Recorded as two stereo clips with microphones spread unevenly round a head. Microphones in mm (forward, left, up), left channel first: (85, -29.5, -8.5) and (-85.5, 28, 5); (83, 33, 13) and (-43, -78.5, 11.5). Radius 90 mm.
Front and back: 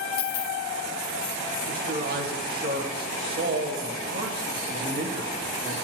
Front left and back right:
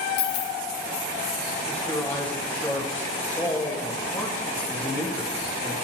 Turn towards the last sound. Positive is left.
turn(degrees=120)